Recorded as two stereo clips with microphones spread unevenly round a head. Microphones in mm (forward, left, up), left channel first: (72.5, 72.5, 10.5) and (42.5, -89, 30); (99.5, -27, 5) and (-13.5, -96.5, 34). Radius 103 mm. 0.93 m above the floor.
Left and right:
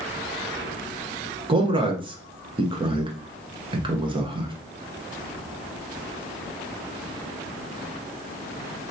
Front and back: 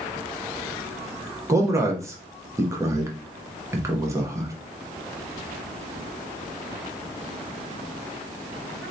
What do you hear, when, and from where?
1.5 s a man speaking: 80° right, 0.8 m